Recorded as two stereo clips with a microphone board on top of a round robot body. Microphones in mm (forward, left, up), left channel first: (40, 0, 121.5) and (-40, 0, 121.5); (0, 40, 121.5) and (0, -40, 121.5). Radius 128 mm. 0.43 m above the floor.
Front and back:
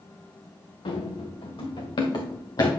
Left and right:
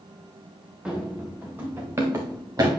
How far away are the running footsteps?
About 3 m.